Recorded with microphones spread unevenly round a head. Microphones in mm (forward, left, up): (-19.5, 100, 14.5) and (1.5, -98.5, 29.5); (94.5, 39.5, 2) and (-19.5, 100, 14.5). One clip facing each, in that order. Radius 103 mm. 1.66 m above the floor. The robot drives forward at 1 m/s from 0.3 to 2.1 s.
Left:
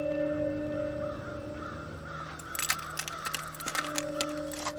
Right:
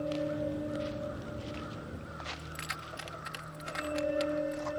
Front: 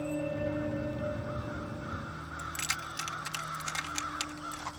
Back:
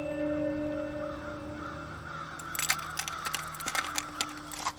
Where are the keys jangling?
125° left.